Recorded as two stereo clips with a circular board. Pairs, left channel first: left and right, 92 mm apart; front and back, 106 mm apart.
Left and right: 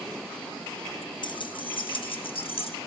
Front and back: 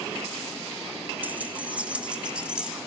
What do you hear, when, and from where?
1.2 s keys jangling: 110° left, 1.0 m; by 2.8 s 100° left, 1.7 m